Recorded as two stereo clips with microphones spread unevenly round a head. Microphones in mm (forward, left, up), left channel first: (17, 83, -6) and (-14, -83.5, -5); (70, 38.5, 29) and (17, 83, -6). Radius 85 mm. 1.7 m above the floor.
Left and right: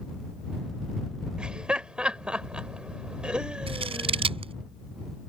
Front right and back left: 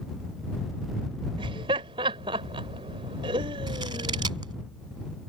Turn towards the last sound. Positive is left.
turn(degrees=-160)